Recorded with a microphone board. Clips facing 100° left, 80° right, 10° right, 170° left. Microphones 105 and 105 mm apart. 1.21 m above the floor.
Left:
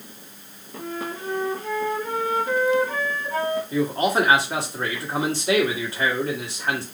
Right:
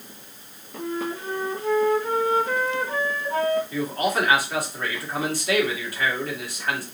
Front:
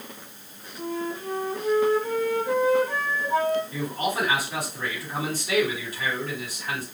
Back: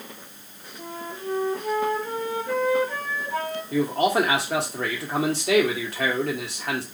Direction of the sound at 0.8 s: 15° right.